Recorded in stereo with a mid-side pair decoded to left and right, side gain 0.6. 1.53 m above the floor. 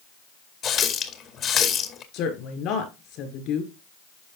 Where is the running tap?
50° left, 2.0 m.